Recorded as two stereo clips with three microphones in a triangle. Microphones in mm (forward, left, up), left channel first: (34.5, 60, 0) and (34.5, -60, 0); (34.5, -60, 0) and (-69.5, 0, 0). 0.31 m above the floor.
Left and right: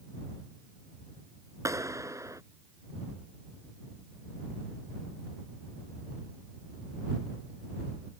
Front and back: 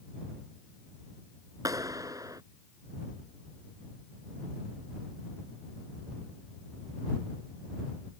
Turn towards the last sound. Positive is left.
turn(degrees=-150)